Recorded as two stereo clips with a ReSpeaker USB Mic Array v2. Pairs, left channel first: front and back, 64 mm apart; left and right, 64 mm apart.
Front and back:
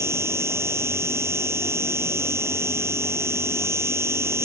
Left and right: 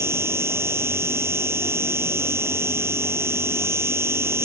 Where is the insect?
135° right.